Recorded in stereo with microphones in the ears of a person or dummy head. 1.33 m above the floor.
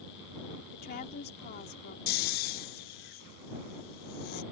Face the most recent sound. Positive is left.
turn(degrees=60)  # may be behind; listen again after turning